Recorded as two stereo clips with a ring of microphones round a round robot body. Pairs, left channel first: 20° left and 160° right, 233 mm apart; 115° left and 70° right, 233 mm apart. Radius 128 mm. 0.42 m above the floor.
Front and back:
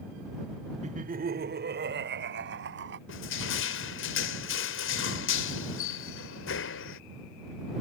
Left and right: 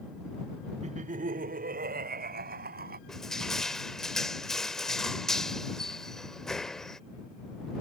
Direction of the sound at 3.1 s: 25° left.